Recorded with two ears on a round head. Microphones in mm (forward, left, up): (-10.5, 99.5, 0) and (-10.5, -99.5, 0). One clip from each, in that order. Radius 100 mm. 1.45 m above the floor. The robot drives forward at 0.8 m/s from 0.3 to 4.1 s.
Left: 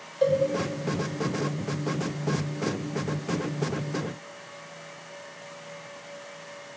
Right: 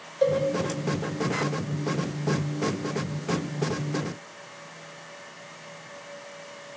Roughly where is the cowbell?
Centre.